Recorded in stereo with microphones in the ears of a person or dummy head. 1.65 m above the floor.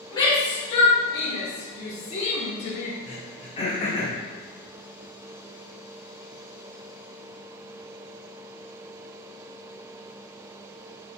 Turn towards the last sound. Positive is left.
turn(degrees=30)  # may be behind; listen again after turning